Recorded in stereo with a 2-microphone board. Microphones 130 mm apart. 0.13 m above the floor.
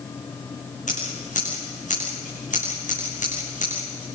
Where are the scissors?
75° left (ahead or behind), 9 m.